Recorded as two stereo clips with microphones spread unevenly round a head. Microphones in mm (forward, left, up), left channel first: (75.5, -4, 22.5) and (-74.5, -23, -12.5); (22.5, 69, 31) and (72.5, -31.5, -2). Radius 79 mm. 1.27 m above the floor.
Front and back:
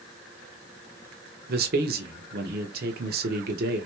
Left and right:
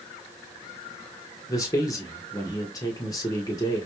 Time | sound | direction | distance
1.5 | a man speaking | 170° right | 1.2 m